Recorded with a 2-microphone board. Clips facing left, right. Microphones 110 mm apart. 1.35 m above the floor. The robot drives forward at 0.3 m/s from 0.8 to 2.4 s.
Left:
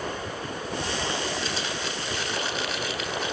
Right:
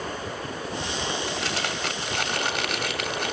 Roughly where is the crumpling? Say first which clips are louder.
Right 1 dB; right.